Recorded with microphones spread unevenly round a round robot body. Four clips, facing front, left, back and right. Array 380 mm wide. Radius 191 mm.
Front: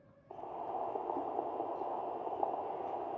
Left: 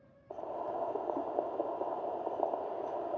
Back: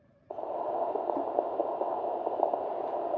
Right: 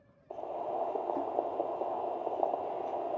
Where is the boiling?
175° right, 0.7 m.